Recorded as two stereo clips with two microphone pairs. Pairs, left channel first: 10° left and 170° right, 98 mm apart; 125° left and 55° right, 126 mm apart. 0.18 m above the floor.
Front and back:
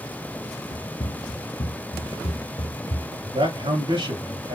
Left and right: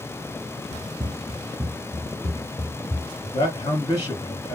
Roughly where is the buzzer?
No buzzer in this recording.